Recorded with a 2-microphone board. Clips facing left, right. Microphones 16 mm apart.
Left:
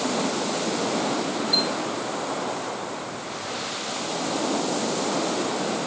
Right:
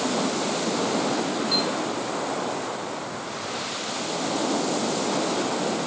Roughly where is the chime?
Right.